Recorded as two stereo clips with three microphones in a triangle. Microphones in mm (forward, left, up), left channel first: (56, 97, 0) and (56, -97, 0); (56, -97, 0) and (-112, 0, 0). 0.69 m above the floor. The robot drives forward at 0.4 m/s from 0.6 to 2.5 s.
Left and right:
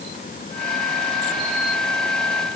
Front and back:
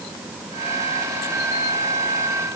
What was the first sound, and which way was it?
Only background noise.